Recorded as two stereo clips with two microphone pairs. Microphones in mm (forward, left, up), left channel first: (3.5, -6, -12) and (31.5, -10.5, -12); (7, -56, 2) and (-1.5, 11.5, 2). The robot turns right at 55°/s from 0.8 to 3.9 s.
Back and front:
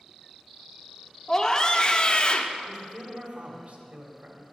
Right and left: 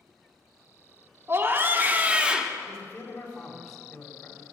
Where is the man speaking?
60° right, 1.7 m; by 4.4 s 10° left, 1.7 m.